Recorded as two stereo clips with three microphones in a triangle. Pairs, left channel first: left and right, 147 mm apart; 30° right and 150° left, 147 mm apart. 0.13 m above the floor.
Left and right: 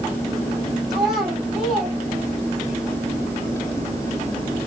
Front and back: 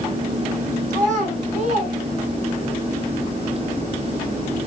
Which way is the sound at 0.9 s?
Straight behind.